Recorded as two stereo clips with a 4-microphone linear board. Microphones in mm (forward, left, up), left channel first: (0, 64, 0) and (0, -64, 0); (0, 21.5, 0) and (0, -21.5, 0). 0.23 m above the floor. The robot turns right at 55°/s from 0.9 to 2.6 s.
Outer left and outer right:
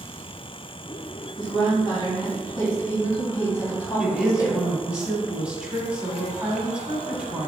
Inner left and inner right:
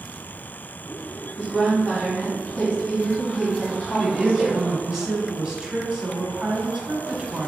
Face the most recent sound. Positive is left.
turn(degrees=-10)  # may be behind; listen again after turning